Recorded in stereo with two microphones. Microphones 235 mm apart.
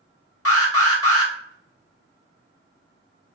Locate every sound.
0.5 s an alarm: 70° left (ahead or behind), 1.6 m